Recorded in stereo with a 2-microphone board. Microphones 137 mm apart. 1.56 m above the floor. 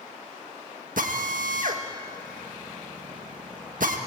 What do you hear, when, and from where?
1.0 s a drill: 75° right (ahead or behind), 1.6 m